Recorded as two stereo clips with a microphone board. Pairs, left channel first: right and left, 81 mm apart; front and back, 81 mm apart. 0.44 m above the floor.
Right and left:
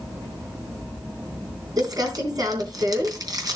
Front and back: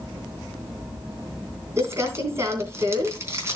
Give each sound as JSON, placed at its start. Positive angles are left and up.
{"t": 1.8, "sound": "crumpling", "azimuth_deg": 125, "distance_m": 3.5}